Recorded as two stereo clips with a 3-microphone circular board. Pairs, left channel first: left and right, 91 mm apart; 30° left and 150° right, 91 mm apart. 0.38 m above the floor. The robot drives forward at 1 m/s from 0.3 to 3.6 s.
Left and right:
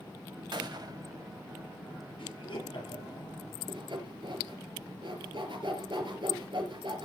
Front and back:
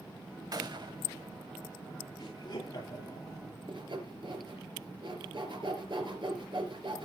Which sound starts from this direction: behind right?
Sawing, at 3.7 s.